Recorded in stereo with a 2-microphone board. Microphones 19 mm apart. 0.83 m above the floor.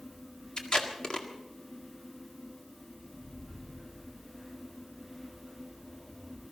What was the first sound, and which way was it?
Tape being pulled, 45° left (ahead or behind).